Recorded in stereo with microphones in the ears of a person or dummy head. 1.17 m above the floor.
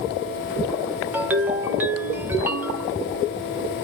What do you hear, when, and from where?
1.1 s a ringtone: 10° right (ahead or behind), 0.5 m